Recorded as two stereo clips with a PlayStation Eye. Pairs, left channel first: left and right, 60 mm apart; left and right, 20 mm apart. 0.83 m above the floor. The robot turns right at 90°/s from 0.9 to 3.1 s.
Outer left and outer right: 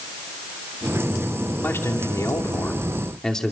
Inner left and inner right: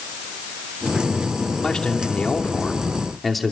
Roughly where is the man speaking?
Ahead left.